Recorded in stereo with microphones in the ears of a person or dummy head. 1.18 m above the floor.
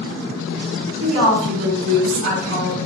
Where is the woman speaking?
70° right (ahead or behind), 1.7 m.